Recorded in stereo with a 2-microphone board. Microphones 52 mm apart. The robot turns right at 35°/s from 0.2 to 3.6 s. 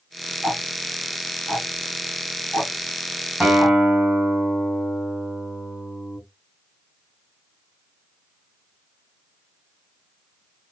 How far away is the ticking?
About 1.0 m.